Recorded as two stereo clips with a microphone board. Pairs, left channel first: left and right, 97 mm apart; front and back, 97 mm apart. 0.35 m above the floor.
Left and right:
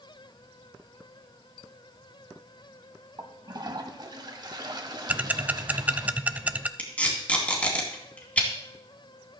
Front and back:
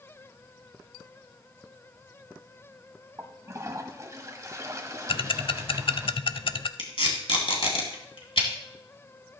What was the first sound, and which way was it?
A toilet flushing, 125° right.